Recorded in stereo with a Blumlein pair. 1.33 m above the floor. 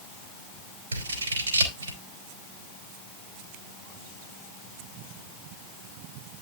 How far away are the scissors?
About 3 m.